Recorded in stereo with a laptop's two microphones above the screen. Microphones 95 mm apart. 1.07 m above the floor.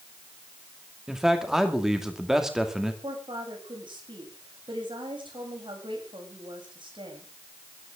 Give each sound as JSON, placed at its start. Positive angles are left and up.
{"t": 1.1, "sound": "a man speaking", "side_deg": -5, "distance_m": 2.0}
{"t": 3.0, "sound": "a woman speaking", "side_deg": -65, "distance_m": 7.5}